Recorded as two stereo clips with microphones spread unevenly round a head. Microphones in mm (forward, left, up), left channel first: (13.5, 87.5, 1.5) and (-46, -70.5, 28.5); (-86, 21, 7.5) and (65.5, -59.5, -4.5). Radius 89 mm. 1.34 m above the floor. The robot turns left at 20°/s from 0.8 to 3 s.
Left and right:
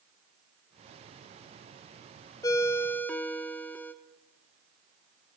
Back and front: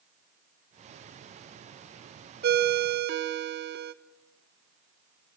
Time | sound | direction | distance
2.4 | a ringtone | 5° right | 0.6 m